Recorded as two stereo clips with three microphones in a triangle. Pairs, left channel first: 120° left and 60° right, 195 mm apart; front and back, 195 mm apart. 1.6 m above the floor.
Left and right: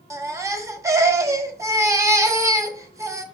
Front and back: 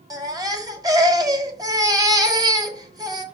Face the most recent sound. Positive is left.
turn(degrees=-120)